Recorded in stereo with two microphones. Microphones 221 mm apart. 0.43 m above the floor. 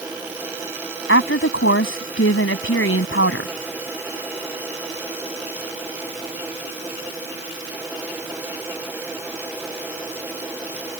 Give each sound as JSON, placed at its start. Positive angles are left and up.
{"t": 1.1, "sound": "a woman speaking", "side_deg": 70}